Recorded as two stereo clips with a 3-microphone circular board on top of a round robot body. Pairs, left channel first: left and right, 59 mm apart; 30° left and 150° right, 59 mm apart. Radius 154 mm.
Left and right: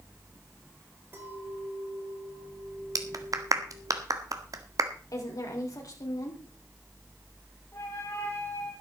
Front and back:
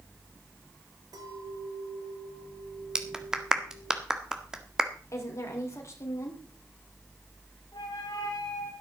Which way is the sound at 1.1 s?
150° right.